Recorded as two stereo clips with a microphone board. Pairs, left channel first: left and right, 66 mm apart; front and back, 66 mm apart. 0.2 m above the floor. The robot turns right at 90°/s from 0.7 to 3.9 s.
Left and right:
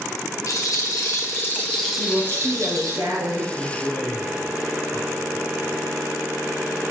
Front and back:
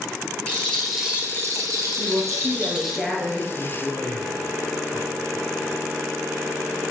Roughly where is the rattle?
Left.